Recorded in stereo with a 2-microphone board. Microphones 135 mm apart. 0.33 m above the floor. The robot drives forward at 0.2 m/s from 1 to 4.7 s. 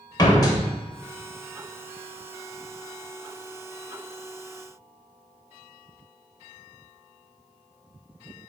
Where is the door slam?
30° left (ahead or behind), 0.8 m.